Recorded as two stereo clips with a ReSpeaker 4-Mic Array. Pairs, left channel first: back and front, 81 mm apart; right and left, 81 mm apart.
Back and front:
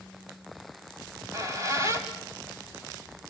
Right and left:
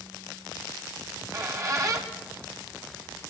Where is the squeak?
45° left, 2.5 m.